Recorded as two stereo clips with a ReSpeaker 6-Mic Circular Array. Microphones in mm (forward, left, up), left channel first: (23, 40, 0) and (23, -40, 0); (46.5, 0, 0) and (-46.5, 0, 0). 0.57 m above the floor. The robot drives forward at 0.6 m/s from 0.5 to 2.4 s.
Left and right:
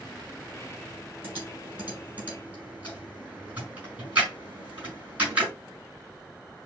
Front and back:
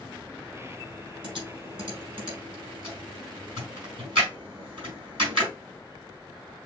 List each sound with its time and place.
1.2 s typing on a keyboard: 155° right, 3.5 m; by 5.5 s 160° right, 4.5 m